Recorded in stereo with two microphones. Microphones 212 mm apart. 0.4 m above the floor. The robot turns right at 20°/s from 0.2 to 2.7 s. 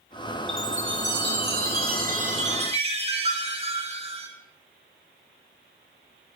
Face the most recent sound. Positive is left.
turn(degrees=-30)